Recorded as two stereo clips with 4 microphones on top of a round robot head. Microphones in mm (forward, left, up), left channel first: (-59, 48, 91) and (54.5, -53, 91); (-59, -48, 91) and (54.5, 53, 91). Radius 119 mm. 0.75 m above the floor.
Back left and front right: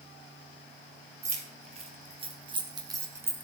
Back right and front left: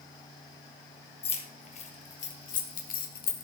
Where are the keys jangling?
85° right, 2.5 m; by 3.5 s 120° right, 1.6 m.